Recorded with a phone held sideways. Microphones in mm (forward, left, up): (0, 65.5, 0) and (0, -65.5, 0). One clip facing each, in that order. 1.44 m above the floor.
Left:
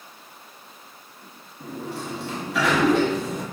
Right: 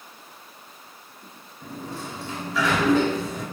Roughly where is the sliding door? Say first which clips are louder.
Left 3 dB; left.